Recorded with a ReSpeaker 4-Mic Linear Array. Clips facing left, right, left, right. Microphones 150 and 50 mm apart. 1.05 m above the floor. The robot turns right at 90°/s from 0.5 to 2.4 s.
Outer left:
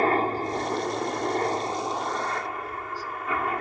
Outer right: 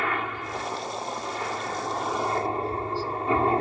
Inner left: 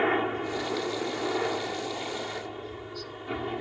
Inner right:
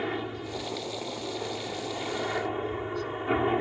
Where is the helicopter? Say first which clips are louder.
Outer left 7 dB, inner left 6 dB; 45° left; by 3.6 s 145° right.